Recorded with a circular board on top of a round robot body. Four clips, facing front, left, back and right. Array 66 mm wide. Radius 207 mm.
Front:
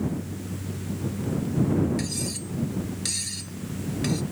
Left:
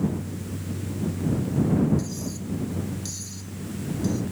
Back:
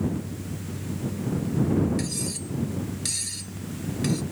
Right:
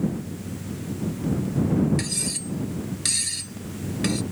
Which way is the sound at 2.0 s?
80° right.